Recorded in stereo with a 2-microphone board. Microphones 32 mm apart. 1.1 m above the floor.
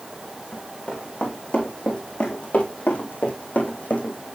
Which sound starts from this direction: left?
Running footsteps, at 0.5 s.